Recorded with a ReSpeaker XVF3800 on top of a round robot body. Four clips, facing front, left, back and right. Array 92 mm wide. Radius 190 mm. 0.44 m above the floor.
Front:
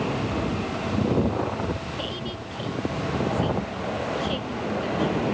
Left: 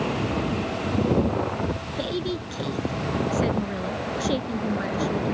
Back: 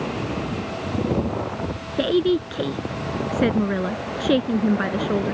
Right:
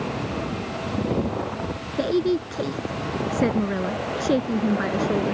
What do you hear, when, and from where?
2.0 s a woman speaking: 150° right